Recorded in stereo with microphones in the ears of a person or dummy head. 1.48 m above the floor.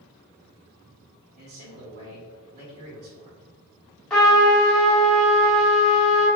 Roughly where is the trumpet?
Centre.